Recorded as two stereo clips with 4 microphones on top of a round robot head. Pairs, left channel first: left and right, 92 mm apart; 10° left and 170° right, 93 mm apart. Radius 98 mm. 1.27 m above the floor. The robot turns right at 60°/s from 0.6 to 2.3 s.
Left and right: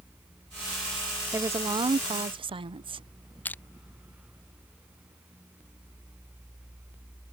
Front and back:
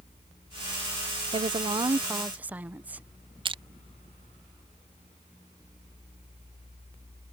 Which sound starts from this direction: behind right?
A woman speaking, at 1.3 s.